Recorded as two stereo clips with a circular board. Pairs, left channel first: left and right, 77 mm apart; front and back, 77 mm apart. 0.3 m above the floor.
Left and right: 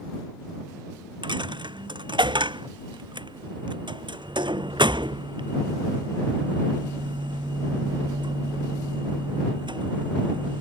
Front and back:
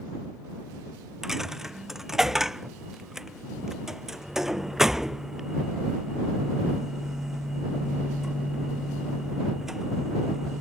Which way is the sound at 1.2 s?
95° right.